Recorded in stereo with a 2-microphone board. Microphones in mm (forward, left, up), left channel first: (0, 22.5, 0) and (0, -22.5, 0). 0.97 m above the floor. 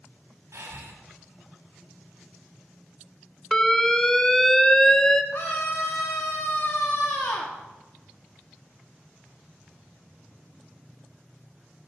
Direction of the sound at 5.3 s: 75° left (ahead or behind).